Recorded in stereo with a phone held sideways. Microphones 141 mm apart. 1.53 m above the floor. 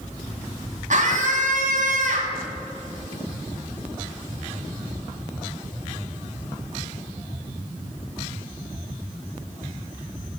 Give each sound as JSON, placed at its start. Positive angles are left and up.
{"t": 0.9, "sound": "a scream", "side_deg": -60, "distance_m": 2.5}